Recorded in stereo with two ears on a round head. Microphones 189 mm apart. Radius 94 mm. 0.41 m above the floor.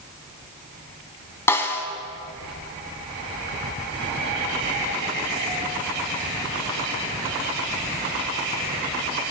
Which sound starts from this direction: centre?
A snare drum, at 1.5 s.